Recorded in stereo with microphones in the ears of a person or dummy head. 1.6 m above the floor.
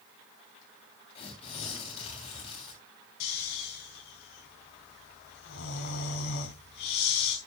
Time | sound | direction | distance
1.1 | tearing paper | 35° left (ahead or behind) | 3.5 m
3.2 | snoring | 60° left (ahead or behind) | 3.5 m